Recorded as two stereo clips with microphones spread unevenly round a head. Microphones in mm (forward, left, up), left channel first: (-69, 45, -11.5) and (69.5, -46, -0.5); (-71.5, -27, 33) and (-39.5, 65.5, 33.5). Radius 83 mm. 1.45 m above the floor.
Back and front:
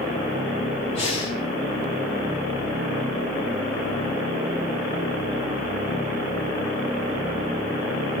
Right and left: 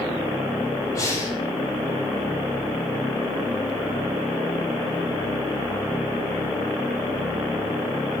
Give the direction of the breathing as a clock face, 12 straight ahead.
5 o'clock.